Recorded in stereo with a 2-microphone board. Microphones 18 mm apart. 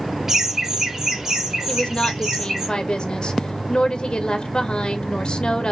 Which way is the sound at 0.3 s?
25° right (ahead or behind).